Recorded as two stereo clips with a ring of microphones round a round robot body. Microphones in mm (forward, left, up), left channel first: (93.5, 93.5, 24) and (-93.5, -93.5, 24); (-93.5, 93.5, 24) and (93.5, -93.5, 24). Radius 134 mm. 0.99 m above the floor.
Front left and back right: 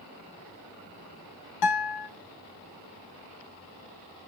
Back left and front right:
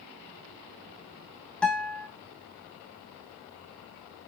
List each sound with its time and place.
1.6 s a guitar: 50° left, 1.3 m